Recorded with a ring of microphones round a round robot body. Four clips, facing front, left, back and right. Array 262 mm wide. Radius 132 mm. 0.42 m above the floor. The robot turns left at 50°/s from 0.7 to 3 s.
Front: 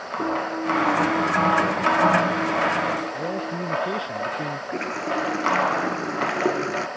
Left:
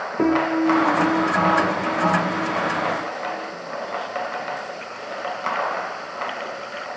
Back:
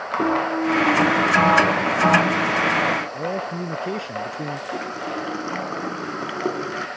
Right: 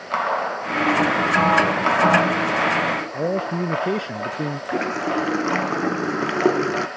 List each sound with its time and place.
0.2 s a piano: 105° left; by 3.6 s 10° right
3.1 s a man speaking: 100° right
4.7 s a running tap: 85° right